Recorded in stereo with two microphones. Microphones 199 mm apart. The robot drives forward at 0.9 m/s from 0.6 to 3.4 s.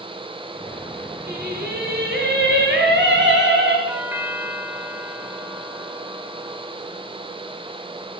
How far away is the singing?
About 7 m.